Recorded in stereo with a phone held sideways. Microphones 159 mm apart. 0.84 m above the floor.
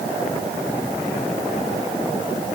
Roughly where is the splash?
No splash in this recording.